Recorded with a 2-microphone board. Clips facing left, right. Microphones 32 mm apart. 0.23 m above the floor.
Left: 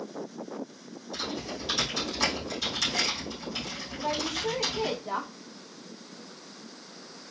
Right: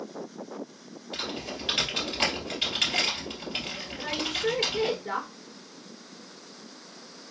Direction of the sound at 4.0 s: 65° right (ahead or behind).